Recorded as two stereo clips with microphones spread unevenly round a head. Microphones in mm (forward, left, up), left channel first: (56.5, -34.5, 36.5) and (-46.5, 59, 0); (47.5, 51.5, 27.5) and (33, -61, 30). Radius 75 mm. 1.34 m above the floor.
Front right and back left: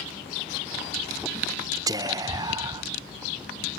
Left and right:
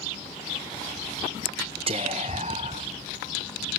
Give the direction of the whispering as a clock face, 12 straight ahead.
5 o'clock.